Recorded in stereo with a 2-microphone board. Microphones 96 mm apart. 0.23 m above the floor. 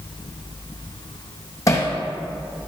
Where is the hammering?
35° left (ahead or behind), 2.5 m.